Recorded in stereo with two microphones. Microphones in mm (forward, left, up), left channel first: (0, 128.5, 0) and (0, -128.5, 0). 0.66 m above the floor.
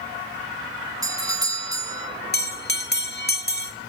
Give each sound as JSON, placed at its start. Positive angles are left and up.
{"t": 1.0, "sound": "a doorbell", "side_deg": -15, "distance_m": 1.9}
{"t": 2.3, "sound": "a bell", "side_deg": 40, "distance_m": 2.0}